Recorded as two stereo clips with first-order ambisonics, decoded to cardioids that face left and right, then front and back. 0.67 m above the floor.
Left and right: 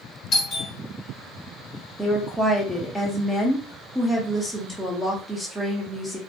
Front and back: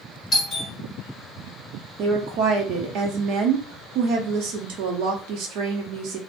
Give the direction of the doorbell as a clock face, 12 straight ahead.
10 o'clock.